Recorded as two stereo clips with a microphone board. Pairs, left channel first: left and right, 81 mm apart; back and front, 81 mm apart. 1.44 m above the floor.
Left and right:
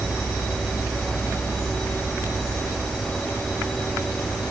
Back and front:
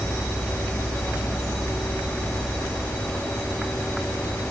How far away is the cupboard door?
No cupboard door in this recording.